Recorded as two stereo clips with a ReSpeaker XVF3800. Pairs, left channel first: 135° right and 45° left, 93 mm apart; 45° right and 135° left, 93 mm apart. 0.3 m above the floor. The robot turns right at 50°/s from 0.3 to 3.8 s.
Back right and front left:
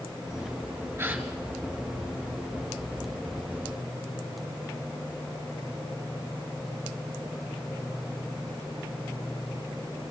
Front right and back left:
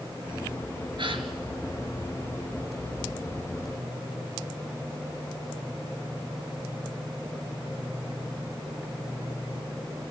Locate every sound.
1.0 s a gasp: 110° left, 1.6 m; by 1.3 s 125° left, 1.6 m